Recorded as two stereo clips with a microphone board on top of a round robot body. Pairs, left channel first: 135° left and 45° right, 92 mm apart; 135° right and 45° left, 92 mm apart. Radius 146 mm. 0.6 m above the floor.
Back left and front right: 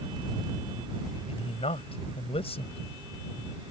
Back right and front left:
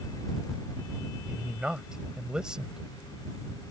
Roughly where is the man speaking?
Behind left.